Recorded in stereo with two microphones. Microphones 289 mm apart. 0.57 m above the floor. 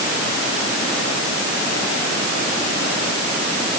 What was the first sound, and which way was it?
Only background noise.